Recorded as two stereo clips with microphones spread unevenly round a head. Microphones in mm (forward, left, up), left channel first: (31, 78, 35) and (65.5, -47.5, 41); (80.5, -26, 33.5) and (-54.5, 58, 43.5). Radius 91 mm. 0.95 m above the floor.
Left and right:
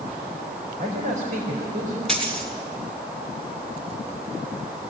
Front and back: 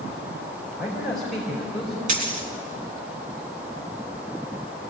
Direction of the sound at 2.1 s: 165° right.